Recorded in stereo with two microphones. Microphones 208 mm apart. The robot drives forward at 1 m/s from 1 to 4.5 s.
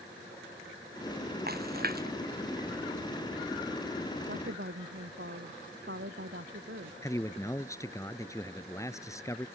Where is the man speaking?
15° left (ahead or behind).